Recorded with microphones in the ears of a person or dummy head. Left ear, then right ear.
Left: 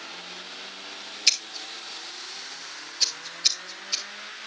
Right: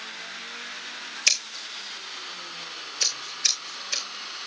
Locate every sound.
1.3 s scissors: 25° right (ahead or behind), 1.9 m